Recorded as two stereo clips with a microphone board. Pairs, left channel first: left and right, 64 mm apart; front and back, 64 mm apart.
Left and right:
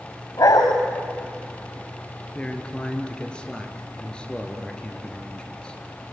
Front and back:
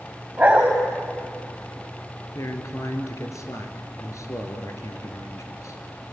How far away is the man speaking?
About 3 m.